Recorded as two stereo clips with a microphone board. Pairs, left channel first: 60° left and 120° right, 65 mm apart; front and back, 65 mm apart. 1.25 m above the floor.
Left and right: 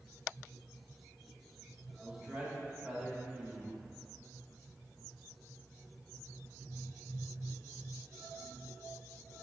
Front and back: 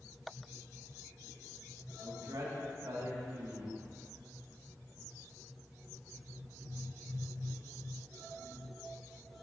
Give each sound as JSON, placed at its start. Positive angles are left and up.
{"t": 2.0, "sound": "a man speaking", "azimuth_deg": 165, "distance_m": 2.0}